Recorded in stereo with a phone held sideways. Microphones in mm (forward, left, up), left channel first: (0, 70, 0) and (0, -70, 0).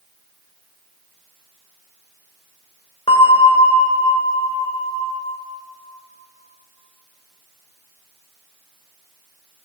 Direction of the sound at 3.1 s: 40° left (ahead or behind).